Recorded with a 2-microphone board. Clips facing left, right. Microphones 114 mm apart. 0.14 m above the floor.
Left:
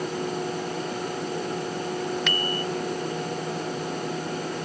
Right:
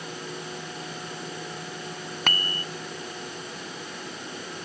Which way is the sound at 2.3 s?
50° right (ahead or behind).